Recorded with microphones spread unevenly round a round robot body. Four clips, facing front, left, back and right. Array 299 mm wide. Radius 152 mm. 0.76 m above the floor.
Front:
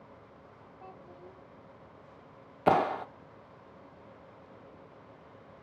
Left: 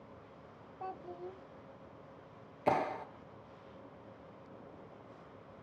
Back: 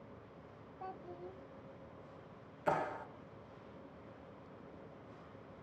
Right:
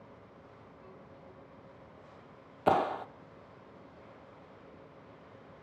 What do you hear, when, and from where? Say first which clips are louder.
0.8 s a child speaking: left 13 dB, back 3 dB; 95° left, 0.7 m
2.7 s a clap: right 5 dB, front 10 dB; 10° right, 1.1 m